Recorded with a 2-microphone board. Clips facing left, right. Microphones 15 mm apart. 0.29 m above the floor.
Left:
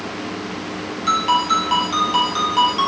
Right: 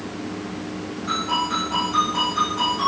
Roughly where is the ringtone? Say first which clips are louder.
Left 6 dB; left.